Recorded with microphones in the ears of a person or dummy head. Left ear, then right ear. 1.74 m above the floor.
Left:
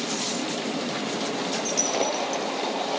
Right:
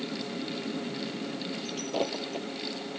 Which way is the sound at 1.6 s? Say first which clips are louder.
Left 6 dB; 65° left (ahead or behind).